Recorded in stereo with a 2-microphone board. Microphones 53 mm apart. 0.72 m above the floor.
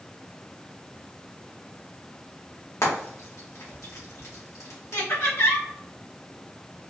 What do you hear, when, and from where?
2.8 s frying: 75° left (ahead or behind), 1.5 m
4.9 s laughter: 55° left (ahead or behind), 1.1 m